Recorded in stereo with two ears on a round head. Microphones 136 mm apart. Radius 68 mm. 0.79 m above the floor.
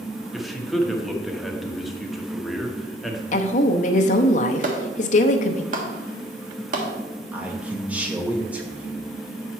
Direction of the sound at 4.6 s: 55° right (ahead or behind).